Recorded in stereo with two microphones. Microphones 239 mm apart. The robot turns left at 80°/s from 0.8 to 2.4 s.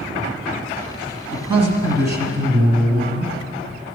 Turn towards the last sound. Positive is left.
turn(degrees=-100)